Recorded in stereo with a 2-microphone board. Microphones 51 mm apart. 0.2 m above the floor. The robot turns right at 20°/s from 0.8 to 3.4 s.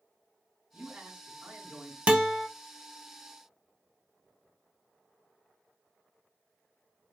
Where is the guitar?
20° right (ahead or behind), 0.5 m.